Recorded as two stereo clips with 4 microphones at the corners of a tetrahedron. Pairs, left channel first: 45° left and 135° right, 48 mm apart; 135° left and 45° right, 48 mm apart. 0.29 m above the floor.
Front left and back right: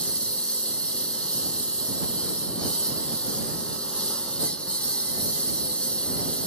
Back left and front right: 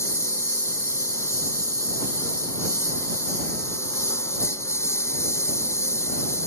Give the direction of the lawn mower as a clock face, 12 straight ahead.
8 o'clock.